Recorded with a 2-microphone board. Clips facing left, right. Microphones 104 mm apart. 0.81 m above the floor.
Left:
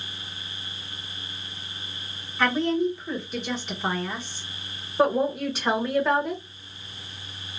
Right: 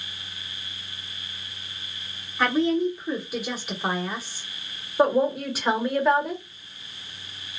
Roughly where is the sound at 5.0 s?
Centre.